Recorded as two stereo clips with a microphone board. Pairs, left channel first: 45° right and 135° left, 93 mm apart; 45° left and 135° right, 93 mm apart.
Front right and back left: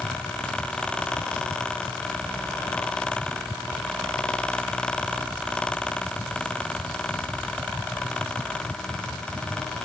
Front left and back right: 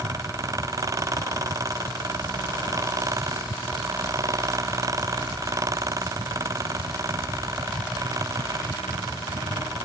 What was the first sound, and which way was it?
Only background noise.